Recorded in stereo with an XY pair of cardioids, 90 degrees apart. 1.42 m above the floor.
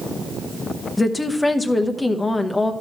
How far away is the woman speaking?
About 1.0 m.